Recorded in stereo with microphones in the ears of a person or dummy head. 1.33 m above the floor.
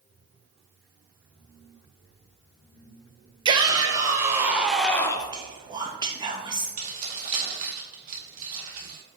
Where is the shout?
25° right (ahead or behind), 1.5 m; by 5.3 s 25° left (ahead or behind), 0.5 m.